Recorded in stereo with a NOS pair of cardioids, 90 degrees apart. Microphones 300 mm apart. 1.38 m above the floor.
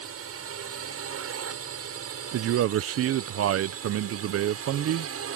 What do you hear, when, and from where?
0.0 s a drone: 55° right
2.3 s a man speaking: 55° right